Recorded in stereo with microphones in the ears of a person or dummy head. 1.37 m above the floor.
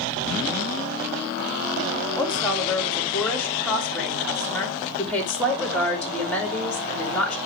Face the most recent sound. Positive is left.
turn(degrees=10)  # may be behind; listen again after turning